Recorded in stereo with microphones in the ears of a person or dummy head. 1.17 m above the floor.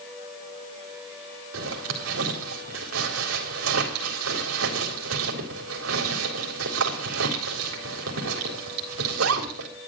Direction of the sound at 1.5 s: 85° right.